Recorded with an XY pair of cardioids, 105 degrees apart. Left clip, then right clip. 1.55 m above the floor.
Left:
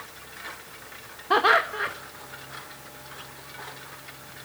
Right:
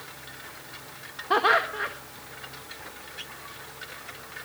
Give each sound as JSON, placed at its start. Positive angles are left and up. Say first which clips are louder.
{"t": 1.3, "sound": "laughter", "louder": "left 2 dB", "azimuth_deg": 10, "distance_m": 1.8}